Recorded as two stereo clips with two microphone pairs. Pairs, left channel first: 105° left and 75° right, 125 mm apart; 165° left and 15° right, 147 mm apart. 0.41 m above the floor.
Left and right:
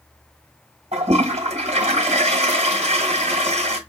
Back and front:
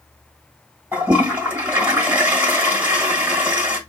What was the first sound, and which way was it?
A toilet flushing, 90° right.